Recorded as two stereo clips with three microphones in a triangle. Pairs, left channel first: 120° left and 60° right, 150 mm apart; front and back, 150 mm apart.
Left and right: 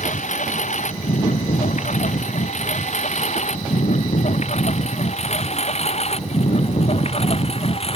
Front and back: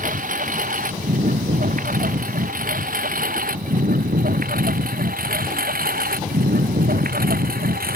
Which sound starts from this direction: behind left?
A lawn mower, at 0.0 s.